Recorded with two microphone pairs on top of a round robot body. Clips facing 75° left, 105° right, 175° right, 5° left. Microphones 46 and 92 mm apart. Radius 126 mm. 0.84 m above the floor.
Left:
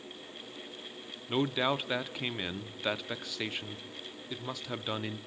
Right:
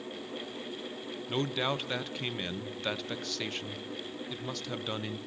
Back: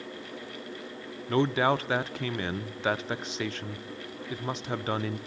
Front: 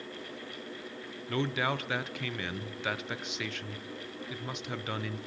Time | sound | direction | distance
1.3 | a man speaking | 165° left | 0.8 m